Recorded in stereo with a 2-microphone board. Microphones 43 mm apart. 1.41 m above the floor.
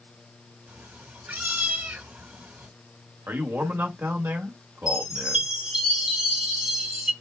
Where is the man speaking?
75° right (ahead or behind), 1.6 m.